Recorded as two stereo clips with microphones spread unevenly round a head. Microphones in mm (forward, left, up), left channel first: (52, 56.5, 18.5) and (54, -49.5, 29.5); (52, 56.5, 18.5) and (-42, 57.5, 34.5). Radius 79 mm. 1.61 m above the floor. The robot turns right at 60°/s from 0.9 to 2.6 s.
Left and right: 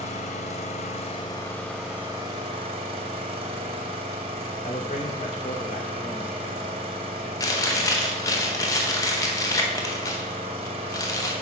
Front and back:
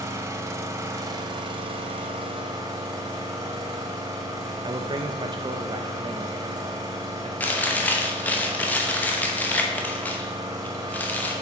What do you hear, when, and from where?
0.0 s an engine running: 130° left, 0.8 m; by 11.4 s 125° right, 0.8 m
4.6 s a man speaking: 135° left, 0.6 m
7.4 s chewing: 70° left, 0.9 m